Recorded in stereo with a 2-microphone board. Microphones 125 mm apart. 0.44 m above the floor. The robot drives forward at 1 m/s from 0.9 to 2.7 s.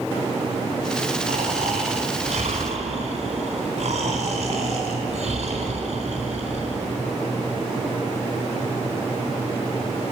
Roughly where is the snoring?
Right.